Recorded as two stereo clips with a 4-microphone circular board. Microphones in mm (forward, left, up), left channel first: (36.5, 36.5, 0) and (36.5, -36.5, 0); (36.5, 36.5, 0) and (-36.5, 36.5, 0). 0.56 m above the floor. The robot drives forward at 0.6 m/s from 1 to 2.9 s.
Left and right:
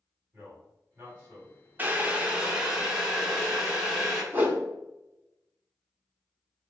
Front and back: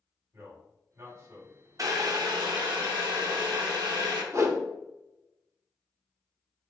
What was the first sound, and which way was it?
A man speaking, 150° right.